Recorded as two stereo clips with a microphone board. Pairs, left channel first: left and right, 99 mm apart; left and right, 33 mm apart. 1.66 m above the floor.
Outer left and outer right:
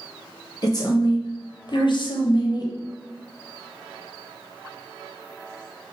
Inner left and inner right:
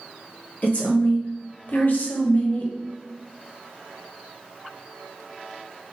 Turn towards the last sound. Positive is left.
turn(degrees=40)  # may be behind; listen again after turning